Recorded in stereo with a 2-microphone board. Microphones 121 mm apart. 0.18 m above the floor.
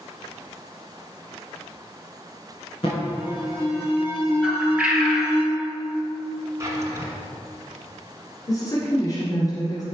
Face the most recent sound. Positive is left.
turn(degrees=30)  # may be behind; listen again after turning